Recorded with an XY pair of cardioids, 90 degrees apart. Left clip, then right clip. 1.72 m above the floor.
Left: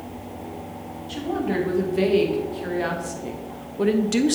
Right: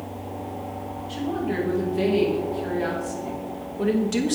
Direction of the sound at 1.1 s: 50° left.